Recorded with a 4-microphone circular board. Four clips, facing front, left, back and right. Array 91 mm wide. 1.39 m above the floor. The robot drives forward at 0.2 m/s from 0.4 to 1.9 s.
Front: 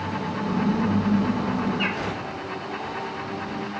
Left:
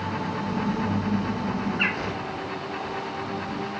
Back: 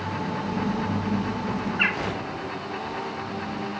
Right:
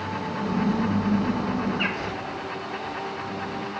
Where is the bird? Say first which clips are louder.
Even, even; 170° left, 0.8 m.